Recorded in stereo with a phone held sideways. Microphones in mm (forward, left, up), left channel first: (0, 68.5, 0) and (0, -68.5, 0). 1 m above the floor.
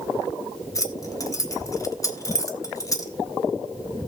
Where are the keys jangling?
25° left (ahead or behind), 1.3 m.